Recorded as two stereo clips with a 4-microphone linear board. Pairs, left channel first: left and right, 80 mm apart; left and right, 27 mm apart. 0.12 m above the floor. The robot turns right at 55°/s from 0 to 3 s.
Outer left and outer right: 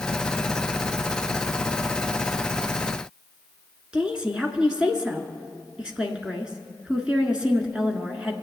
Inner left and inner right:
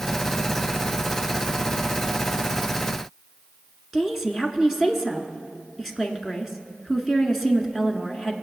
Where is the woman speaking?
10° right (ahead or behind), 1.3 m.